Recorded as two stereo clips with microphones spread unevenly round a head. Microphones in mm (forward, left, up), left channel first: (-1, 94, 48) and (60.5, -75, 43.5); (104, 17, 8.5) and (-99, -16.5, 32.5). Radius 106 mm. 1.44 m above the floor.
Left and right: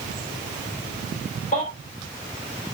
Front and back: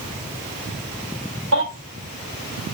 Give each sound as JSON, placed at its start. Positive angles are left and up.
{"t": 1.5, "sound": "a baby crying", "azimuth_deg": 165, "distance_m": 6.5}